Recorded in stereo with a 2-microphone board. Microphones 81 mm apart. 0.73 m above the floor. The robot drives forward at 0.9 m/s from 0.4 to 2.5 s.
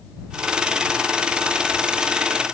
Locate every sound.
Only background noise.